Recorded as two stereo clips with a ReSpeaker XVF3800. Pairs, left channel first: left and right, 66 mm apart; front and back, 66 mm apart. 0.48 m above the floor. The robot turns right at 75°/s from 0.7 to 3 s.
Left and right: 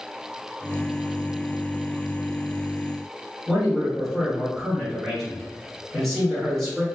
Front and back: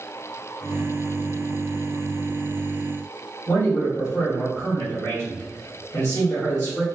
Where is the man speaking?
5° left, 1.6 m.